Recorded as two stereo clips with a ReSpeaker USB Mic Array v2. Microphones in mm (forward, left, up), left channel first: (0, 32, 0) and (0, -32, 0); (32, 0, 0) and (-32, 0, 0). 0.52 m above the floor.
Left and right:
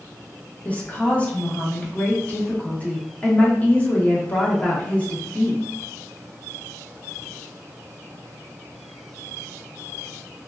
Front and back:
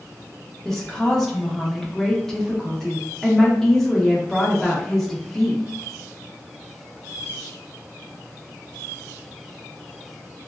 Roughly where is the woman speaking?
Left.